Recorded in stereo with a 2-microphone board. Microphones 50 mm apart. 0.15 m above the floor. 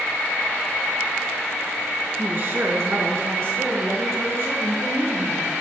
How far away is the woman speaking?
About 1.4 m.